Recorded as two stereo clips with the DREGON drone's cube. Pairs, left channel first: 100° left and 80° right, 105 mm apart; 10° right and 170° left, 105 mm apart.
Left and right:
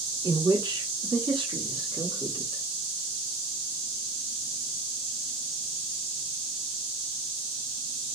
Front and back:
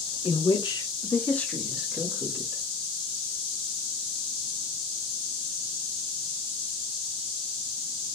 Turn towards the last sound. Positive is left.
turn(degrees=-135)